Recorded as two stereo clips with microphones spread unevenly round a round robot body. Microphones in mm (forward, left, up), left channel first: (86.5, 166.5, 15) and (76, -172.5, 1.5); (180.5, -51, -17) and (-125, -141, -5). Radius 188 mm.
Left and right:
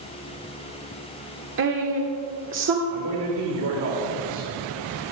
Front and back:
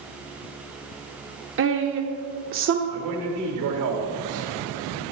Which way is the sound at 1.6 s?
130° right.